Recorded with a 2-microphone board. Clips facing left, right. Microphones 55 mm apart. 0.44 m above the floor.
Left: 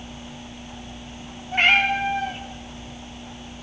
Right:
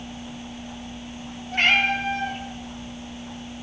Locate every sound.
1.5 s a cat meowing: 10° left (ahead or behind), 2.5 m